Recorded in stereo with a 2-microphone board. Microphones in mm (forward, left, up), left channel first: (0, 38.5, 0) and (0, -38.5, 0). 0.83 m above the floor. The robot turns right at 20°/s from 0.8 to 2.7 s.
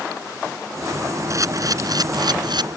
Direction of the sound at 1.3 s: 45° right (ahead or behind).